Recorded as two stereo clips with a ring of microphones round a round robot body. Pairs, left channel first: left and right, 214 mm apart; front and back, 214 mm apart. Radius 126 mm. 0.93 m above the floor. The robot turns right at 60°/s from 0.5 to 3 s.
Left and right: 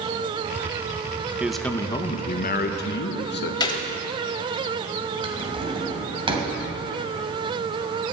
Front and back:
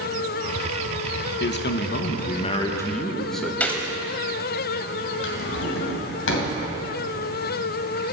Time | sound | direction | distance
1.4 | a man speaking | 10° right | 0.9 m
3.6 | a gunshot | 70° left | 0.7 m
5.2 | a drawer | 25° right | 2.5 m